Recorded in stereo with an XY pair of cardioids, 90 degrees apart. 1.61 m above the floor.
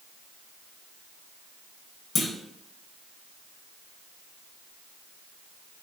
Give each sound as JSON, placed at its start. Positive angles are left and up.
{"t": 2.1, "sound": "a clunk", "azimuth_deg": 35, "distance_m": 0.8}